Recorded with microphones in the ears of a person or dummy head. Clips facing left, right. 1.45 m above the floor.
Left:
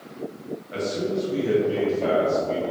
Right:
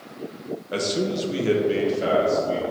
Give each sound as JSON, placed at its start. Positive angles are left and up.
{"t": 0.7, "sound": "a man speaking", "side_deg": -75, "distance_m": 1.5}